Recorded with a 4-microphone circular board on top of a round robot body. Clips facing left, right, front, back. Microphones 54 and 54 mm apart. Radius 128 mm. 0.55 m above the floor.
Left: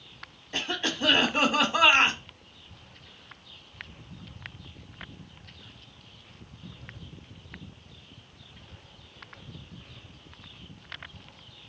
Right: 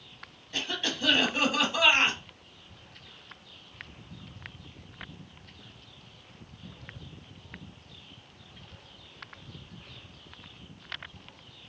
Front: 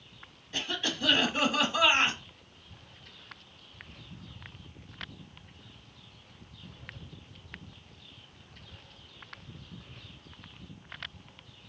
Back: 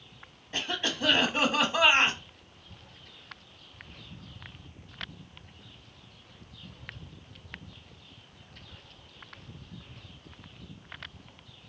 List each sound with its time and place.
0.5 s a cough: 140° left, 1.4 m